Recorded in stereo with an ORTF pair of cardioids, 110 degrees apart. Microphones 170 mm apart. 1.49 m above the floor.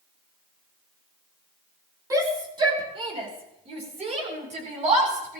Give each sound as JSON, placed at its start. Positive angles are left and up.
{"t": 2.1, "sound": "a shout", "azimuth_deg": -20, "distance_m": 5.0}